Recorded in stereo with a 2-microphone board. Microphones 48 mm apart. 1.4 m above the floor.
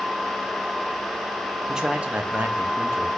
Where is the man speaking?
10° right (ahead or behind), 1.7 m; by 3.1 s 55° right (ahead or behind), 2 m.